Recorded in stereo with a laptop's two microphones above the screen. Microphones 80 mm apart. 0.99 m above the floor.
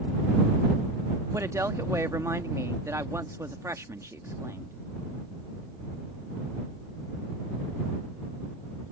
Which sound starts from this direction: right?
A woman speaking, at 1.3 s.